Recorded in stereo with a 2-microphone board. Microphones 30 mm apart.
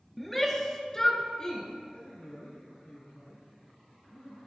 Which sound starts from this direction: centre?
A shout, at 0.2 s.